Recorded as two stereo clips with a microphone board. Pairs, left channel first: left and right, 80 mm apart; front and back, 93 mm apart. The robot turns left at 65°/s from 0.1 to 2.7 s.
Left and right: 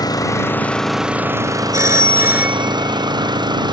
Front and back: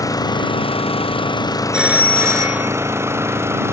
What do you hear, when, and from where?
0.0 s an engine running: 50° left; by 3.7 s 120° right
1.7 s a phone ringing: 105° right; by 3.7 s 165° right